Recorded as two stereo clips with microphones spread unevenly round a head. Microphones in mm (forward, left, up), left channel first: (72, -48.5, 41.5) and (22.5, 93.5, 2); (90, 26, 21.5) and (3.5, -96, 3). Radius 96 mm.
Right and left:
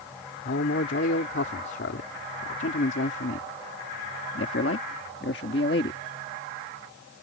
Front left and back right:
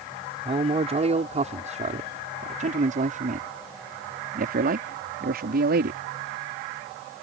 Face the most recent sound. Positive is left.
turn(degrees=-115)